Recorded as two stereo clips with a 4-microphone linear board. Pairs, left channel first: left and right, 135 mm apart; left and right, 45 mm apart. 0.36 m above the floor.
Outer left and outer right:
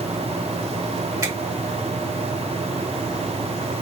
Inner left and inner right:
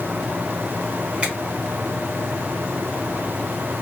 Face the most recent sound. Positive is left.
turn(degrees=-25)  # may be behind; listen again after turning